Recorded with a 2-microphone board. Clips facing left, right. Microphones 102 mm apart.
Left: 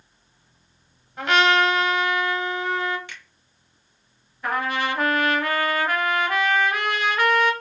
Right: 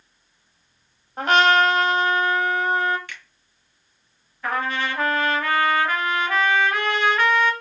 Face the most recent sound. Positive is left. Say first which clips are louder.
# left 1 dB
turn(degrees=10)  # may be behind; listen again after turning